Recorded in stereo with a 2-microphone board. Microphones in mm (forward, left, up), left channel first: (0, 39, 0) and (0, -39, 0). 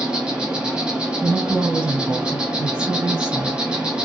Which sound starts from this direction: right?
A woman speaking, at 1.2 s.